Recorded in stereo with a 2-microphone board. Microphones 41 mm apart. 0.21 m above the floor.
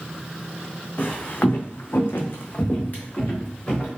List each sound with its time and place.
1.0 s footsteps: 40° left (ahead or behind), 0.7 m; by 3.9 s 30° left (ahead or behind), 1.3 m